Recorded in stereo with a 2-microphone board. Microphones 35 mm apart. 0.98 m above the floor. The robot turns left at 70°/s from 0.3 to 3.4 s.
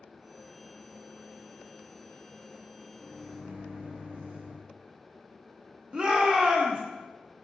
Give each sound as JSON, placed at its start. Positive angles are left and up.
{"t": 3.0, "sound": "a microwave", "side_deg": -70, "distance_m": 1.0}
{"t": 5.9, "sound": "a shout", "side_deg": -25, "distance_m": 0.6}